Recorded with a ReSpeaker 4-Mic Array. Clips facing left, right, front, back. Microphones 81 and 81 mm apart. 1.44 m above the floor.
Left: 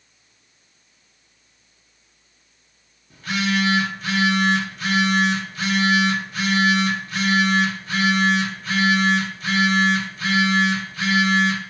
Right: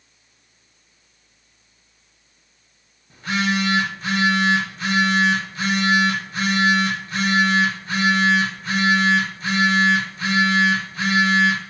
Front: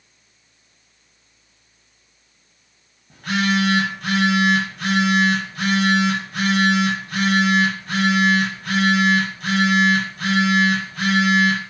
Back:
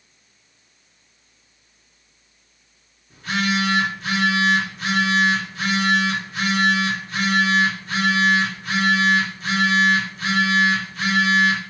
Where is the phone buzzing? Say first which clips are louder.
Right 1 dB, front 2 dB; 30° right, 0.9 m.